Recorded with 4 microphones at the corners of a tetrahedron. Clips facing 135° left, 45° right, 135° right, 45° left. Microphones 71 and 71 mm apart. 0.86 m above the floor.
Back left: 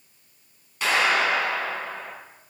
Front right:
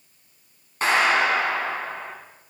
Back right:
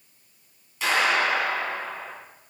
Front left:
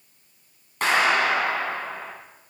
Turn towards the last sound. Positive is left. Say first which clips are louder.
# front right 2 dB, front left 2 dB
turn(degrees=5)